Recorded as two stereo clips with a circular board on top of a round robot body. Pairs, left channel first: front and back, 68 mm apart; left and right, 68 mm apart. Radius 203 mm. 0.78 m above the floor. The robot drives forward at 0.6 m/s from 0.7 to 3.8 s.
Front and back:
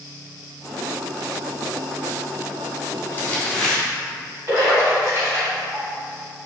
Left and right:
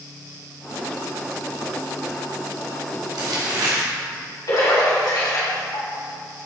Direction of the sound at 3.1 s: 60° right.